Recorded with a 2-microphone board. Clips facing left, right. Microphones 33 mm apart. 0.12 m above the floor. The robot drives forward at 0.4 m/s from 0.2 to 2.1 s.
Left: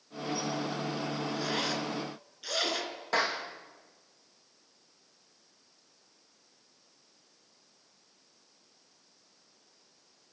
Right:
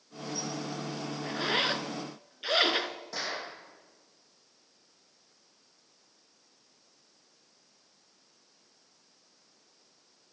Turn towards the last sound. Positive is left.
turn(degrees=55)  # may be behind; listen again after turning